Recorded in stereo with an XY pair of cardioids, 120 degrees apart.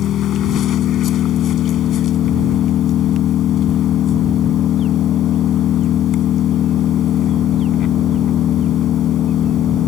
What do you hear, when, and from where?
0.0 s an engine running: 60° left